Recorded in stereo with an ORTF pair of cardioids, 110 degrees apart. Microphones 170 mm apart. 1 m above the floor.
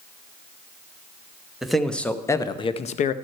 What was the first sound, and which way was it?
A man speaking, straight ahead.